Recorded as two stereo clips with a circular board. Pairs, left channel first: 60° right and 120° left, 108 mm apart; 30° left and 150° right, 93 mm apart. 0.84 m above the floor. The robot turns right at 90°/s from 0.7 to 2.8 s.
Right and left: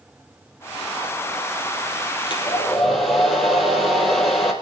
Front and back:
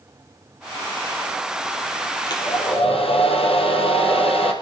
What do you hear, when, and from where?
2.3 s a hair dryer: 20° right, 3.5 m; by 4.5 s 30° left, 3.5 m